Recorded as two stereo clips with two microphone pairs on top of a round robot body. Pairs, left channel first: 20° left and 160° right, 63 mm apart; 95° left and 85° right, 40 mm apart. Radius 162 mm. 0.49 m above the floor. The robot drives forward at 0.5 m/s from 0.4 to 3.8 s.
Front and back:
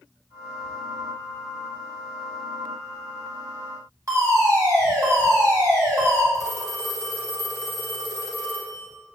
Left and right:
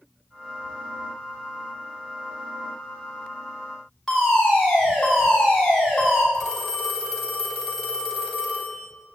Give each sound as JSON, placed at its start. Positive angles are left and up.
{"t": 4.1, "sound": "a fire alarm", "azimuth_deg": 175, "distance_m": 5.0}
{"t": 6.3, "sound": "a phone ringing", "azimuth_deg": 180, "distance_m": 3.5}